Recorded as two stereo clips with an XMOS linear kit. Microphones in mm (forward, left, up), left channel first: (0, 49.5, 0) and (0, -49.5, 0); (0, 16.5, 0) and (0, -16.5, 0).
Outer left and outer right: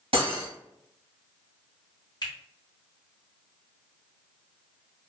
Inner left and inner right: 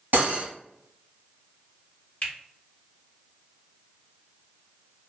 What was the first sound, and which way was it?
Cutlery clinking, 75° right (ahead or behind).